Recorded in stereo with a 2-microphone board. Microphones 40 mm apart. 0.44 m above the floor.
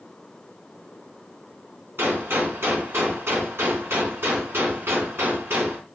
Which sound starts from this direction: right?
A gunshot, at 2.0 s.